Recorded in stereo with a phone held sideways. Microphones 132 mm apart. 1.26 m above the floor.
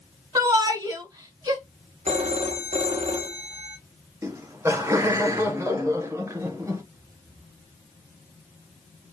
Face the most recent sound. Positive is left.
turn(degrees=-20)  # may be behind; listen again after turning